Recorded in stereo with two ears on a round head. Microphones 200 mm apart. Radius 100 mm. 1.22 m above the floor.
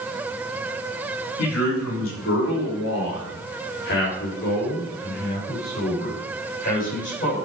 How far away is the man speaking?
About 2.5 m.